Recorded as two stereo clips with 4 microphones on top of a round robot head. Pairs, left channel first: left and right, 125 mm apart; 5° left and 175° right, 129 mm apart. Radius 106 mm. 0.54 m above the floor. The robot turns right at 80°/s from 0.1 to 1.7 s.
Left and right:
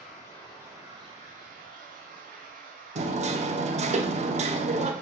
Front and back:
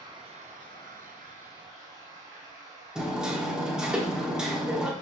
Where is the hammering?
90° right, 0.9 m.